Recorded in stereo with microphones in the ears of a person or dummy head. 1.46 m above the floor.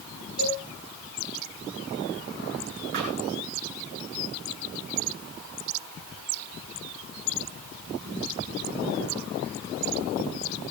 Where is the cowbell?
85° right, 8 m.